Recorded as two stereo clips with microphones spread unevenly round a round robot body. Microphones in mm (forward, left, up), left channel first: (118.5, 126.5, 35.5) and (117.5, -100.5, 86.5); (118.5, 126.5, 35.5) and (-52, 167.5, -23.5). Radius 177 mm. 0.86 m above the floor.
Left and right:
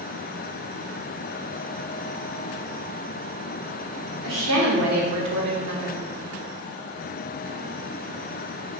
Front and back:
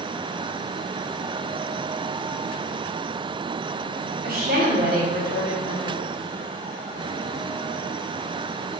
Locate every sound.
4.2 s a woman speaking: 140° right, 2.5 m; by 6.0 s 100° right, 2 m